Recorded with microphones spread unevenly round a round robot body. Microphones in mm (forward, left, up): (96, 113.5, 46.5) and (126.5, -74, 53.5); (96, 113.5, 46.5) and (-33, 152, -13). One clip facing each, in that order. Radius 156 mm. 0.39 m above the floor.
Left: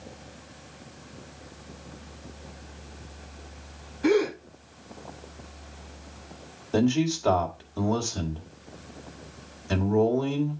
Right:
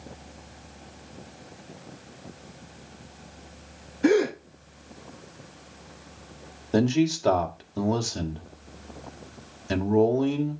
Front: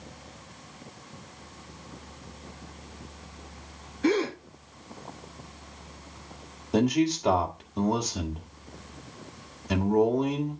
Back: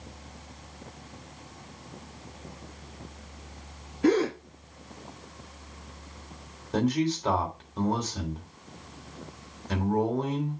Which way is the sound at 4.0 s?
140° right.